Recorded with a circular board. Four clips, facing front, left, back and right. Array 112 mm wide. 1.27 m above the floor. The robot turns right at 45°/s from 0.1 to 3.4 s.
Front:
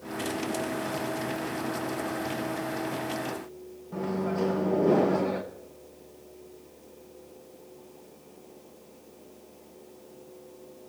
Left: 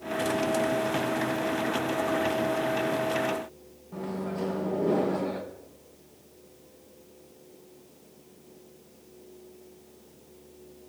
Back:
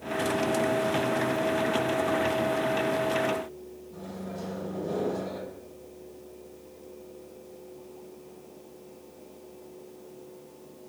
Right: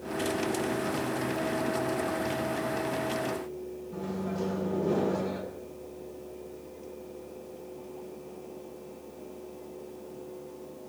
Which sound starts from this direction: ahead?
A microwave, at 3.9 s.